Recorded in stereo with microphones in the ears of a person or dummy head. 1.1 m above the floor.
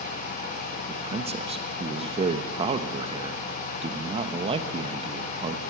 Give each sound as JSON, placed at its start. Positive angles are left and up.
{"t": 0.9, "sound": "a man speaking", "side_deg": -35, "distance_m": 1.1}